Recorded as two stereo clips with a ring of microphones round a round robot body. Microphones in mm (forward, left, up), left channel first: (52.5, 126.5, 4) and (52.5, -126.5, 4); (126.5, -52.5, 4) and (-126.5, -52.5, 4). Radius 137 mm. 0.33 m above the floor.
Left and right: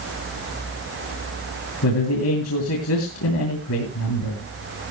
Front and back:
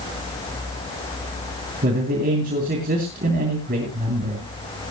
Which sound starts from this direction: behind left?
A man speaking, at 1.8 s.